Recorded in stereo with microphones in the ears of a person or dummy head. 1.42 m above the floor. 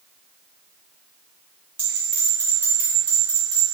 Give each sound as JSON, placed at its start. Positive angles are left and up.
{"t": 1.8, "sound": "a bell", "side_deg": 5, "distance_m": 1.9}